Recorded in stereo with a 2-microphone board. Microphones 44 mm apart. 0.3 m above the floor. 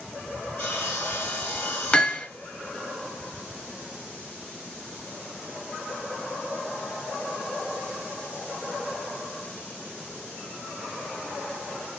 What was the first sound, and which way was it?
Sawing, 55° left (ahead or behind).